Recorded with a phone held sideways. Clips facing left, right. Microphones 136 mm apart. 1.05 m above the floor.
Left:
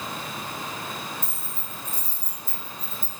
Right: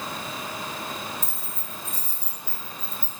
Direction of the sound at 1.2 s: 80° right.